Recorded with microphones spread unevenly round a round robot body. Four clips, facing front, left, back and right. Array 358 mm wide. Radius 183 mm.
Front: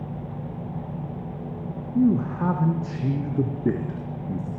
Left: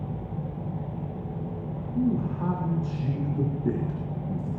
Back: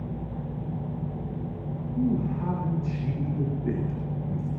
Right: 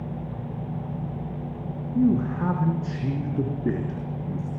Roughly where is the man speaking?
Ahead right.